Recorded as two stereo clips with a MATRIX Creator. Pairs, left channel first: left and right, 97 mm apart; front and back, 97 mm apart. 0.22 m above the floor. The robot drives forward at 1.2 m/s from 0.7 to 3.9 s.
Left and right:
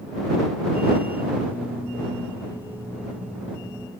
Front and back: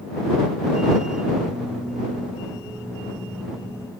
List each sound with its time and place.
Only background noise.